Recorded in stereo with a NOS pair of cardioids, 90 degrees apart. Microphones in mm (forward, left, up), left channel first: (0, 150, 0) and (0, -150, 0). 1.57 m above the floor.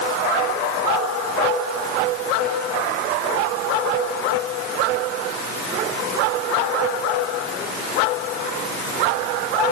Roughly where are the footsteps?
No footsteps in this recording.